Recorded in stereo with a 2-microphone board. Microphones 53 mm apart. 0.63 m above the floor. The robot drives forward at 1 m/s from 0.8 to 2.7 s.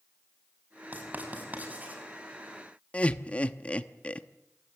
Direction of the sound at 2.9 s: 25° left (ahead or behind).